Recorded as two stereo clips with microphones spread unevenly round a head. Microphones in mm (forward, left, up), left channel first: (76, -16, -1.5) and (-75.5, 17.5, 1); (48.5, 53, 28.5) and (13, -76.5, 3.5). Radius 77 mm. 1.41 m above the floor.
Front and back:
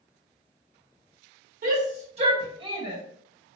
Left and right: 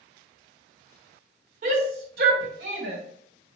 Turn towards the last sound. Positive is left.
turn(degrees=-125)